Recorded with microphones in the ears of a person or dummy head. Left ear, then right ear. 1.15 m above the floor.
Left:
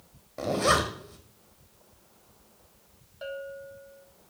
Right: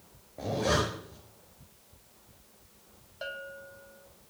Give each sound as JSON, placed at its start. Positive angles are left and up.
{"t": 0.4, "sound": "a zipper", "side_deg": 60, "distance_m": 1.6}
{"t": 3.2, "sound": "a bell", "side_deg": -15, "distance_m": 0.5}